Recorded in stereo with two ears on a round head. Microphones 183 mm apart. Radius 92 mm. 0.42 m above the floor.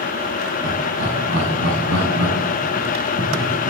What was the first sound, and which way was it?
Laughter, 60° right (ahead or behind).